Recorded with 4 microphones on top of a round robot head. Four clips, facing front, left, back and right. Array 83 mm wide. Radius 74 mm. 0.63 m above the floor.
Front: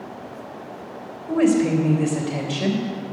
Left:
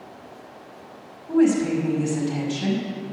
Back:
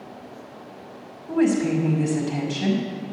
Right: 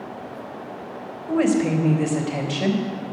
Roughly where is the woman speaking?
Ahead right.